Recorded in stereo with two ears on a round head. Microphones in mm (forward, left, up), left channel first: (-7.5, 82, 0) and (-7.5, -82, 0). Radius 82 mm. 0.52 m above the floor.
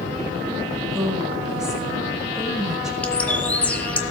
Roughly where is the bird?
Centre.